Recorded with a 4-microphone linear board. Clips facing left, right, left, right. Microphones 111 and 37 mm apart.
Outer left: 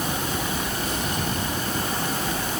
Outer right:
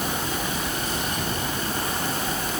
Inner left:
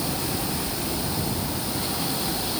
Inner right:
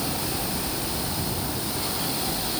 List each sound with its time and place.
Only background noise.